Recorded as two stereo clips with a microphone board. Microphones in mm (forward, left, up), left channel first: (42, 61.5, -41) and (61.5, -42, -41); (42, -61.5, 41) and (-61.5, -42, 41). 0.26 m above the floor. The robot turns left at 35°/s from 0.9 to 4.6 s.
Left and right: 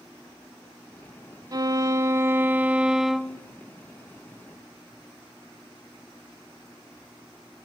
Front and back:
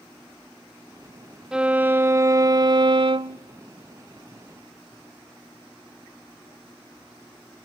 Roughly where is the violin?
Right.